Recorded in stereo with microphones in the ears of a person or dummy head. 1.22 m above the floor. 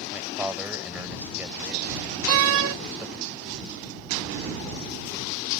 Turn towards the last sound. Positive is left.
turn(degrees=-70)  # may be behind; listen again after turning